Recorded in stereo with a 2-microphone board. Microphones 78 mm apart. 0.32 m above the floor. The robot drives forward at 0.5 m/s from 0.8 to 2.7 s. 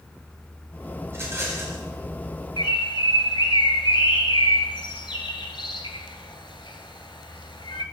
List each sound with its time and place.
1.1 s a rattle: 30° right (ahead or behind), 1.9 m; by 1.8 s 35° right (ahead or behind), 1.6 m
2.6 s a bird: 80° left, 0.8 m; by 7.8 s 85° left, 0.8 m